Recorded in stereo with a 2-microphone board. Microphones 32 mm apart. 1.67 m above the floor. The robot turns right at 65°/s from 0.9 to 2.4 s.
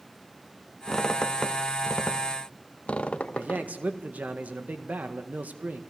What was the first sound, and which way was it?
A squeak, 10° left (ahead or behind).